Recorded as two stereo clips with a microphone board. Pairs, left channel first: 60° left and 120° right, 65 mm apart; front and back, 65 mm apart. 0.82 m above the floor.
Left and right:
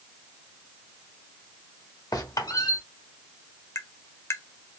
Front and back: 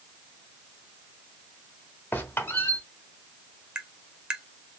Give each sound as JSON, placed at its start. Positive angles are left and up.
{"t": 2.1, "sound": "a squeak", "azimuth_deg": 55, "distance_m": 1.0}
{"t": 3.8, "sound": "tapping", "azimuth_deg": 105, "distance_m": 0.6}